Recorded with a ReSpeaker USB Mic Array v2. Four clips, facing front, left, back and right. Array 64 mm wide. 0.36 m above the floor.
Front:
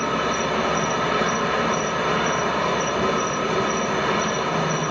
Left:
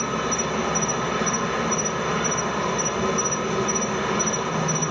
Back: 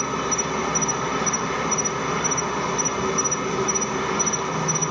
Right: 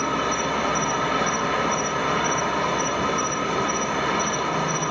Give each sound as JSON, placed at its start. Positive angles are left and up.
{"t": 0.0, "sound": "an insect", "azimuth_deg": -10, "distance_m": 0.9}